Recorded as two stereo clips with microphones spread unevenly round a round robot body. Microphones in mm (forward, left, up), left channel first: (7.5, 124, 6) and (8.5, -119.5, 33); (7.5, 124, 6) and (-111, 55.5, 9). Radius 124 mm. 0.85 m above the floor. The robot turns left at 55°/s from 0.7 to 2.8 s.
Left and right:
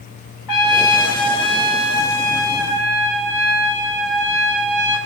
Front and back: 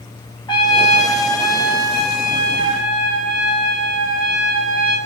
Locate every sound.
0.5 s a trumpet: 90° left, 0.9 m; by 5.0 s 25° right, 0.9 m